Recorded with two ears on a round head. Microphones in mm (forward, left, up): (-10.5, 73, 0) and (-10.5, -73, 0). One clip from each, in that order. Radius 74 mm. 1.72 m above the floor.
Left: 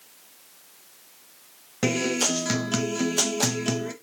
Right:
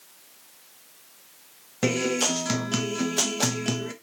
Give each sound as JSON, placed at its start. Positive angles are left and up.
{"t": 1.8, "sound": "a guitar", "side_deg": 5, "distance_m": 1.0}